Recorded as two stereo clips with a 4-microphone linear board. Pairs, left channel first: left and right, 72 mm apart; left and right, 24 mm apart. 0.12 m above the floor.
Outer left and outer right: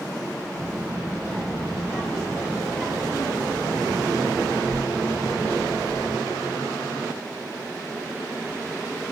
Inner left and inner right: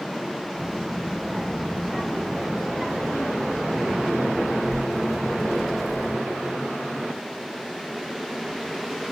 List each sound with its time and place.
0.6 s a child speaking: 10° left (ahead or behind), 3 m